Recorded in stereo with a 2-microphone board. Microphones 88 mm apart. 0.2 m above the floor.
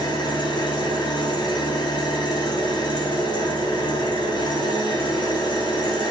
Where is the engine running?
60° left (ahead or behind), 1.2 m.